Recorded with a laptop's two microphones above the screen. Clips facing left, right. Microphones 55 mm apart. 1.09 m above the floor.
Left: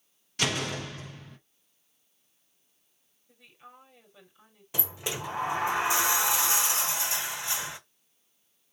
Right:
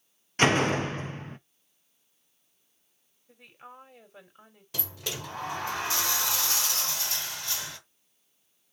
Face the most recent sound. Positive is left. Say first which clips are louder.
# left 2 dB
turn(degrees=20)  # may be behind; listen again after turning